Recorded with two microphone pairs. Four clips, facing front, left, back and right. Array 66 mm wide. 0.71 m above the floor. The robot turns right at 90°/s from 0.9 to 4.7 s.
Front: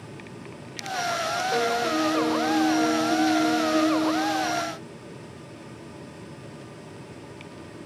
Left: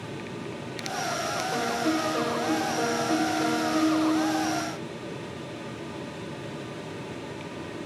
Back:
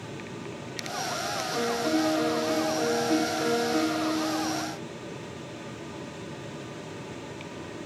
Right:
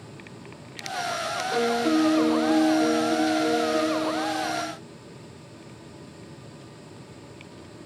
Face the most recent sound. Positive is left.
turn(degrees=-105)